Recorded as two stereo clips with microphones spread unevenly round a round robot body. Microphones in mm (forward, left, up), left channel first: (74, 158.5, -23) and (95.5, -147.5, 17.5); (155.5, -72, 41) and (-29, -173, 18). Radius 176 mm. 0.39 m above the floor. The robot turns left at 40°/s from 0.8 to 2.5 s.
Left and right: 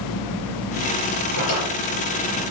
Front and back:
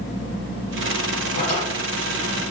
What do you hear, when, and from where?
1.4 s a drawer: 60° left, 4 m; by 1.7 s 50° left, 4 m